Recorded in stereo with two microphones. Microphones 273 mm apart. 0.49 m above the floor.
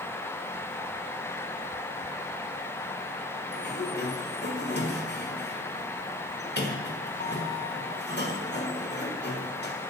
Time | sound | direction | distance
3.5 | a sliding door | 40° left (ahead or behind) | 1.5 m